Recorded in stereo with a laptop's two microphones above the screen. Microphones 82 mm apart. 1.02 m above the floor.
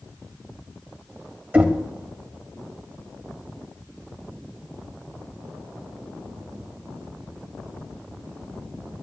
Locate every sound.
1.5 s knocking: 20° right (ahead or behind), 2 m